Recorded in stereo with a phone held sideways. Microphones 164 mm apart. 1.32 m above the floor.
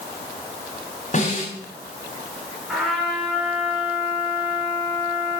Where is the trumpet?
Centre (ahead or behind), 8.5 m.